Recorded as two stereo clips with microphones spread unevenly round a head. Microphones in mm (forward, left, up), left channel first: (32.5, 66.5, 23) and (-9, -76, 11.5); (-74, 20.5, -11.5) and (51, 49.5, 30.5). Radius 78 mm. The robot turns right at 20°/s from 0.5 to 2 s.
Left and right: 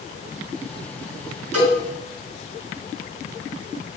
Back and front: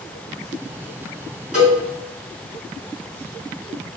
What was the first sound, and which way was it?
A cowbell, 65° right.